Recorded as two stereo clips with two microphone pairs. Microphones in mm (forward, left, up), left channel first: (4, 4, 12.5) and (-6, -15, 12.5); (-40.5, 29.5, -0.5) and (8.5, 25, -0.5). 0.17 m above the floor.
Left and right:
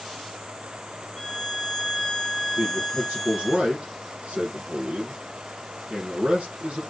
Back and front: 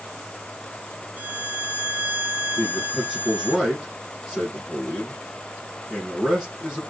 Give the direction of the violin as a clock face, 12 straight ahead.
11 o'clock.